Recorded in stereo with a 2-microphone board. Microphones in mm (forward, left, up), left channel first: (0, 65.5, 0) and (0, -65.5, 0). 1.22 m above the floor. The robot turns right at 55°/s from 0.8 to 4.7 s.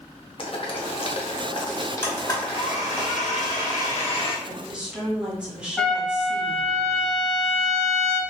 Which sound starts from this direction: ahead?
A blender, at 2.0 s.